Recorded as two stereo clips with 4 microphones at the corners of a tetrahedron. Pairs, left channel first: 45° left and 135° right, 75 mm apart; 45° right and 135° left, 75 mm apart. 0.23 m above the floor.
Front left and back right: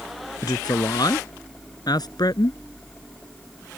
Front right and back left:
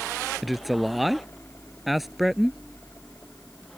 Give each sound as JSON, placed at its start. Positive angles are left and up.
{"t": 0.4, "sound": "a man speaking", "azimuth_deg": 45}